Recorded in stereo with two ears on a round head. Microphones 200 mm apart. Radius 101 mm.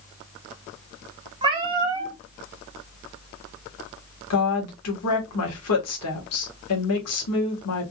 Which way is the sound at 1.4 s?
20° right (ahead or behind).